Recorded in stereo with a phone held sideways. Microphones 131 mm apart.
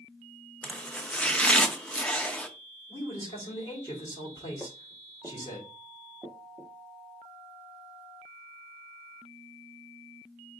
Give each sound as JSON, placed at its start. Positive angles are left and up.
{"t": 0.6, "sound": "chopping", "side_deg": 10, "distance_m": 0.5}
{"t": 2.9, "sound": "a man speaking", "side_deg": 25, "distance_m": 3.5}
{"t": 4.6, "sound": "footsteps", "side_deg": 5, "distance_m": 1.3}